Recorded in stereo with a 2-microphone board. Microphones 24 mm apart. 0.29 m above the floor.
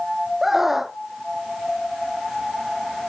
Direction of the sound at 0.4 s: 15° right (ahead or behind).